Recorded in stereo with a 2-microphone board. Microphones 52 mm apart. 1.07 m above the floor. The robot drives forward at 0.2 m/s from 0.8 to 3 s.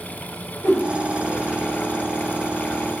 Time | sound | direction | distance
0.6 | a whoosh | 45° left (ahead or behind) | 0.9 m